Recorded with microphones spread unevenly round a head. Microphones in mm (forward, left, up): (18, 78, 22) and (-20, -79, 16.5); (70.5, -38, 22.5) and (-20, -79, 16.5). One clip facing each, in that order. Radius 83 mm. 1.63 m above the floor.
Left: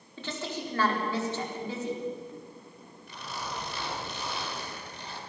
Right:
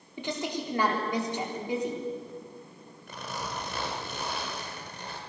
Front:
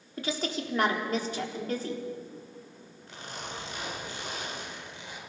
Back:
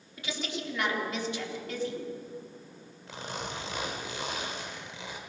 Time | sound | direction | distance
0.2 | a woman speaking | 25° right | 4.5 m
3.1 | a zipper | 155° right | 4 m